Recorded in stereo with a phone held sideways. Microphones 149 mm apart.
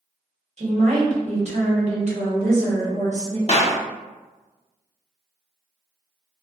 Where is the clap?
45° left (ahead or behind), 0.5 m.